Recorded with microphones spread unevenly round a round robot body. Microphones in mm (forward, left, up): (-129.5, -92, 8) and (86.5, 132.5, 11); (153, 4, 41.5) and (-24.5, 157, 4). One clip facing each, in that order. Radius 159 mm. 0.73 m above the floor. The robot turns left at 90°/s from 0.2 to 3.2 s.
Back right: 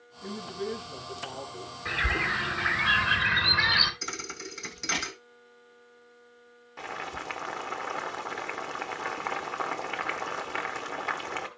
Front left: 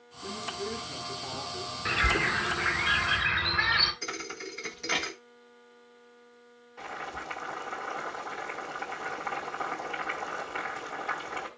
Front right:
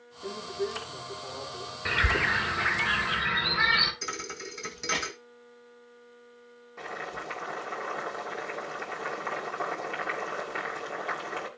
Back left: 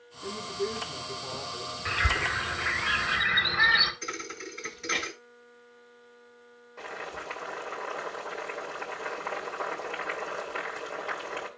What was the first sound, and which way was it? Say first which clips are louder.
A woman speaking: back right 3 dB, even; 165° right.